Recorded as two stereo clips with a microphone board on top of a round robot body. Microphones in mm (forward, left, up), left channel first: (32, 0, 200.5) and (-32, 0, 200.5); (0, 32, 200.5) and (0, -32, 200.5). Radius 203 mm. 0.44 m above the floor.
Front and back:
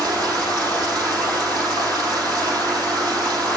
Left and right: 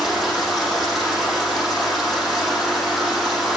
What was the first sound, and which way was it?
Running water, 175° right.